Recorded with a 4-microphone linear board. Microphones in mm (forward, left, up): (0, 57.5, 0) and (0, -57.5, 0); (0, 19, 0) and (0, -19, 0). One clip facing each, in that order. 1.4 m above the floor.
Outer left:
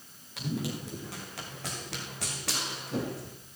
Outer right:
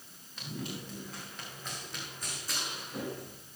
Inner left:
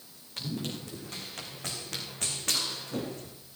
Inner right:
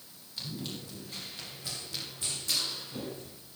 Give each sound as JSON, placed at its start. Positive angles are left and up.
{"t": 0.4, "sound": "running footsteps", "side_deg": 80, "distance_m": 7.0}